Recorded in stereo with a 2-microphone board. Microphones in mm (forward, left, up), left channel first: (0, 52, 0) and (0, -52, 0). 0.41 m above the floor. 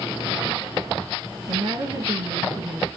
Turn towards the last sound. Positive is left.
turn(degrees=-50)  # may be behind; listen again after turning